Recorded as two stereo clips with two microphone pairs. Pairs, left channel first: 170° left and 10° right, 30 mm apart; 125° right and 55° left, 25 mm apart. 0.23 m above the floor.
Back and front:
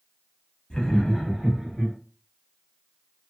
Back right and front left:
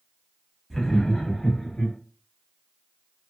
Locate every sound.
0.7 s laughter: 170° left, 1.0 m; by 1.9 s 85° right, 1.6 m